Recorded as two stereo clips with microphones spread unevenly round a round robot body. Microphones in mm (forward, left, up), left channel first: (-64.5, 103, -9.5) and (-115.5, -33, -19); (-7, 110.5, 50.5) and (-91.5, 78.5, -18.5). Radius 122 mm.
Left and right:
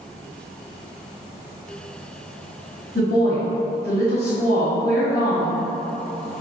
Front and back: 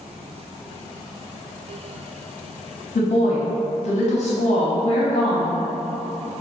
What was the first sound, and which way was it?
A woman speaking, 25° left.